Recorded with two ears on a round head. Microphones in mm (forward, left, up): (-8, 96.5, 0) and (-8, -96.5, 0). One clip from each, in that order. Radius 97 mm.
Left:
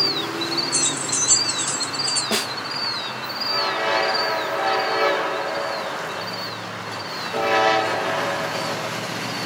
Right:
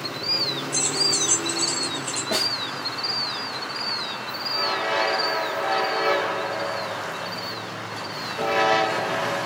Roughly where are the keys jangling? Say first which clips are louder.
Right 1 dB; left.